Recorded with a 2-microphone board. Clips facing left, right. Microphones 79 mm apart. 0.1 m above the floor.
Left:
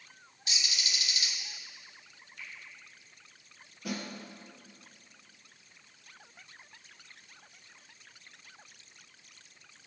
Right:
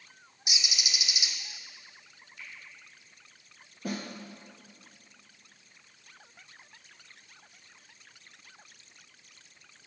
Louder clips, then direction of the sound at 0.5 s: Right 1 dB; 20° right (ahead or behind).